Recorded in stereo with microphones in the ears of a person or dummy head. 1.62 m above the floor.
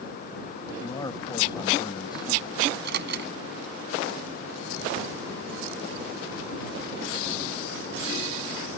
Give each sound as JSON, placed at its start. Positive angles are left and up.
{"t": 0.8, "sound": "a man speaking", "side_deg": 15}
{"t": 2.7, "sound": "a microwave", "side_deg": -60}